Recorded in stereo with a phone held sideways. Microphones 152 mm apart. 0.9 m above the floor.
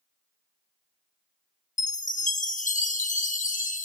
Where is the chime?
55° left (ahead or behind), 0.5 m.